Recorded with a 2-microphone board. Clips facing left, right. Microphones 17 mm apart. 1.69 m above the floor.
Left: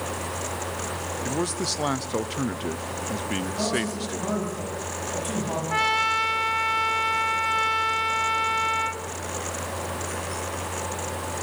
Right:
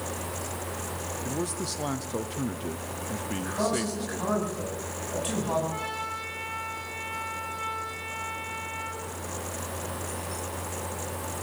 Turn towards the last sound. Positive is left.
turn(degrees=75)  # may be behind; listen again after turning